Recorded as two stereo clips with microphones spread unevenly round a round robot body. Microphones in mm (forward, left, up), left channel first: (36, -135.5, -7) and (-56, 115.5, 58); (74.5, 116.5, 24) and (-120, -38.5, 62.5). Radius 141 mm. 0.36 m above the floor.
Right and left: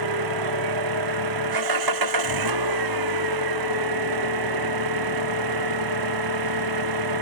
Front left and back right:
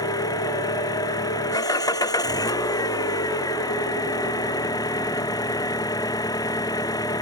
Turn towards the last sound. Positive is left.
turn(degrees=115)